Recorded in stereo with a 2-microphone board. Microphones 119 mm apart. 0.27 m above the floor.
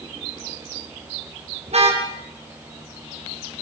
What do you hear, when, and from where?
1.7 s a car horn: 60° right (ahead or behind), 6 m